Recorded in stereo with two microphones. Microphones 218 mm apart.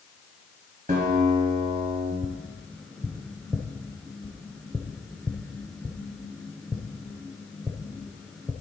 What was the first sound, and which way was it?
A guitar, 35° right (ahead or behind).